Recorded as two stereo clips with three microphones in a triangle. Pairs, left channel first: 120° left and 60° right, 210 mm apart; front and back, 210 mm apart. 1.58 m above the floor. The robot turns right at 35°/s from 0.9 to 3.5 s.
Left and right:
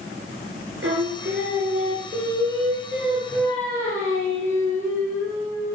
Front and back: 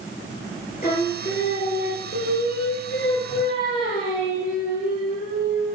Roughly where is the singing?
Ahead right.